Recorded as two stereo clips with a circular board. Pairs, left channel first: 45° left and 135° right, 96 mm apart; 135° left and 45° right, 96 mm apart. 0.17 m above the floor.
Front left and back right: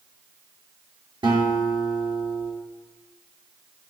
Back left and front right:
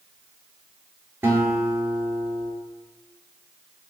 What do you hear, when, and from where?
1.2 s a guitar: 110° right, 1.1 m